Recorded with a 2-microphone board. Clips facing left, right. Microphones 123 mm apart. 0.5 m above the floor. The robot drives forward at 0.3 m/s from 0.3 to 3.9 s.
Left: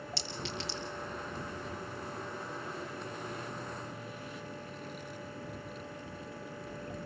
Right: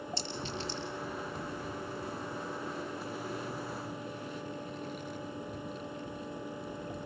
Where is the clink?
75° left (ahead or behind), 6.5 m.